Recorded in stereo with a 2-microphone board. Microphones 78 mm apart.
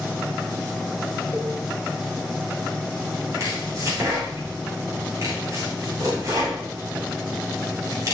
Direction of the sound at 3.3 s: 45° right (ahead or behind).